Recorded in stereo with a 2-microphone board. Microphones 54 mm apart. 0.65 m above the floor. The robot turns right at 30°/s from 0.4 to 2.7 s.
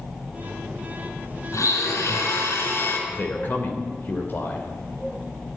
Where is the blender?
90° left, 5 m; by 3.0 s 125° left, 5 m.